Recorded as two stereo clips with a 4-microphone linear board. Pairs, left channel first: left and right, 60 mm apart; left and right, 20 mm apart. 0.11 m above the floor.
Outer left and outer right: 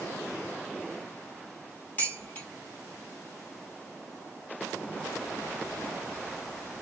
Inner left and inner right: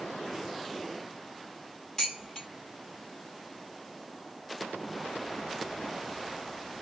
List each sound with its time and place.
2.0 s dishes clattering: 25° left (ahead or behind), 2 m